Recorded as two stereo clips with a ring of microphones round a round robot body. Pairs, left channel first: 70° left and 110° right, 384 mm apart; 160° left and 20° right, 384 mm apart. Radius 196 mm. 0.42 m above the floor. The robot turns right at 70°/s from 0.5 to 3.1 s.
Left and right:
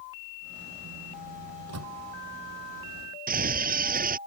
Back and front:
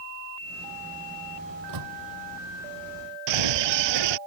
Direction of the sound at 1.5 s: 80° right.